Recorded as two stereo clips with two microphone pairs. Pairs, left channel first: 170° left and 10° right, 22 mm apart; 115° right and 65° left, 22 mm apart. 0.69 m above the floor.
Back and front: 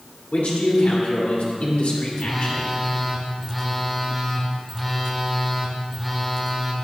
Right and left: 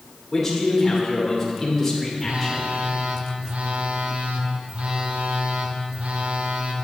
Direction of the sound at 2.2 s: 85° left.